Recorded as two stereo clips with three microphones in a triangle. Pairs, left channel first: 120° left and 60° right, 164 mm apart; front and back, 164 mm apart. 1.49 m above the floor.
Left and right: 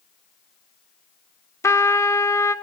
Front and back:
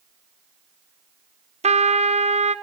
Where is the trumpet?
175° right, 0.6 m.